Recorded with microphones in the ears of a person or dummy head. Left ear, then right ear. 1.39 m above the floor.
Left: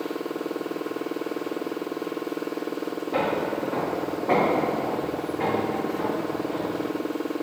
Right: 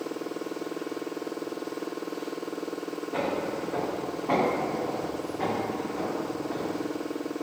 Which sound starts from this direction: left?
Footsteps, at 3.1 s.